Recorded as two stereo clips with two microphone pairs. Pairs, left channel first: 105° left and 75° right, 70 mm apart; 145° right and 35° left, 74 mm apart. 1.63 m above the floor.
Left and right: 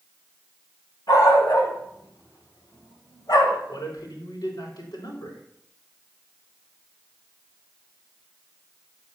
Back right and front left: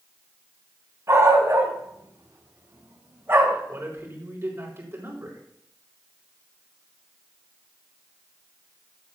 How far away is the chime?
No chime in this recording.